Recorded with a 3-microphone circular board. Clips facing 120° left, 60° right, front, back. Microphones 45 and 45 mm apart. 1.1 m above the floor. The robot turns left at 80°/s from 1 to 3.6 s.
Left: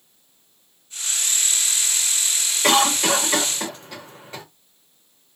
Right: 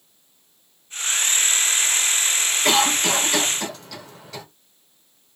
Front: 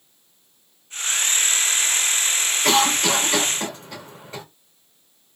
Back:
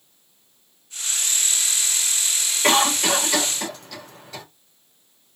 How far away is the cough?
About 2 m.